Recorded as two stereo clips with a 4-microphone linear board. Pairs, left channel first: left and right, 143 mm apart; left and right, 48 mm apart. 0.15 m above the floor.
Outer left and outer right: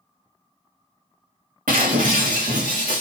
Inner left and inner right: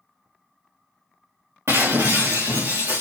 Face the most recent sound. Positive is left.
turn(degrees=-75)  # may be behind; listen again after turning